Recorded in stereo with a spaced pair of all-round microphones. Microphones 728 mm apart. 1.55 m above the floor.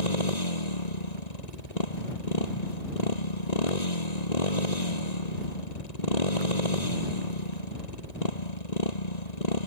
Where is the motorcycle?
55° left (ahead or behind).